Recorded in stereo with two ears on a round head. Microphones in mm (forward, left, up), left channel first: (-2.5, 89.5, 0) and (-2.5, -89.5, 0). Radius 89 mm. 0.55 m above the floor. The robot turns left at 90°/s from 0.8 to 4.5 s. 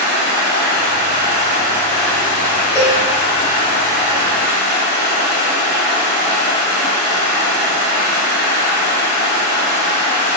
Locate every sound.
0.0 s running water: 75° right, 1.3 m; by 10.4 s 50° right, 1.3 m
2.8 s a cowbell: 15° left (ahead or behind), 0.7 m; by 3.0 s 10° right (ahead or behind), 0.7 m